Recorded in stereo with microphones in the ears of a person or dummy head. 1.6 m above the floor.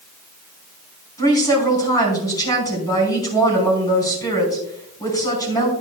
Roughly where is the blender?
I don't hear a blender.